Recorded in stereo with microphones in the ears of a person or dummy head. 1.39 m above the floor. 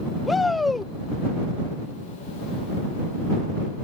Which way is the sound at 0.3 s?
5° left (ahead or behind).